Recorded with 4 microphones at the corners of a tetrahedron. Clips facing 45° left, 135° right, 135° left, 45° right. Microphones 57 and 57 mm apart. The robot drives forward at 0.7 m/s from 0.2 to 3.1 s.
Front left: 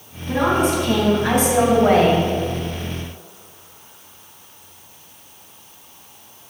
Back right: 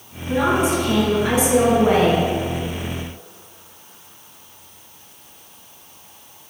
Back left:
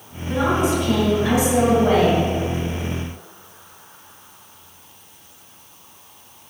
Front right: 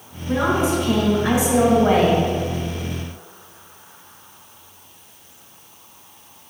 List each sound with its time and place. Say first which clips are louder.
0.3 s a woman speaking: even, even; 10° left, 3 m; by 2.2 s 20° left, 2 m